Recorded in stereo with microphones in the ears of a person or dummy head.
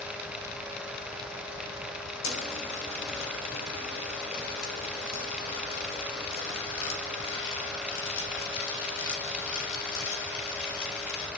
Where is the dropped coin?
75° left (ahead or behind), 4.5 m.